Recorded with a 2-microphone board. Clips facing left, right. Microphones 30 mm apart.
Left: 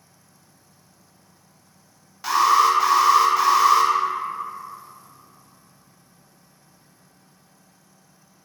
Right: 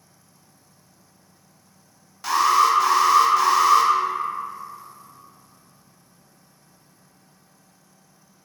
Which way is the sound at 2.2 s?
10° left (ahead or behind).